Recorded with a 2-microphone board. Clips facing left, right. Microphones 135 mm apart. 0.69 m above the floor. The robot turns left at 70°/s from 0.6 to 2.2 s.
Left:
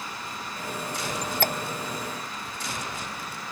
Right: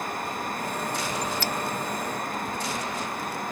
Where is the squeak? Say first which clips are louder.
Left 1 dB; 70° left (ahead or behind); by 1.5 s 45° left (ahead or behind).